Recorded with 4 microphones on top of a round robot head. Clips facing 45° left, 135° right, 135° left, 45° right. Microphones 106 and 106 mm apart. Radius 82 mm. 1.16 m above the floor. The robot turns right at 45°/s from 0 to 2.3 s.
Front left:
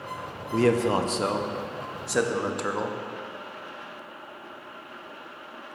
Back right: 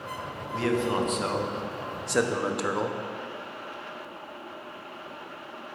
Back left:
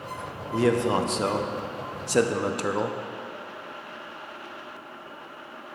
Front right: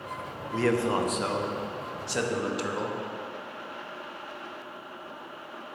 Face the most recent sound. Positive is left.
turn(degrees=140)